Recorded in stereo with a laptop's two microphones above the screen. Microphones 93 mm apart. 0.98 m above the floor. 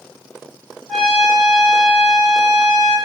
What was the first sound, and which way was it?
A trumpet, centre (ahead or behind).